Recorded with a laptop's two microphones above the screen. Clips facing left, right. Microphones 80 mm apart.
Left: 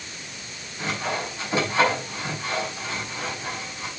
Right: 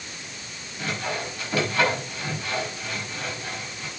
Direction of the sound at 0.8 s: 25° left (ahead or behind).